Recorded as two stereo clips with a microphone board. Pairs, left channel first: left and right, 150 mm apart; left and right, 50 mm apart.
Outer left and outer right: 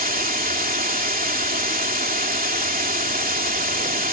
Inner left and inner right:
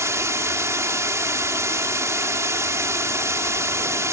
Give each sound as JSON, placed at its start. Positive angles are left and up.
{"t": 0.0, "sound": "running water", "side_deg": -75}